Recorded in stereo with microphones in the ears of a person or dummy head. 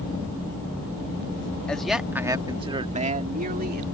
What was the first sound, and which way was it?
A man speaking, 5° left (ahead or behind).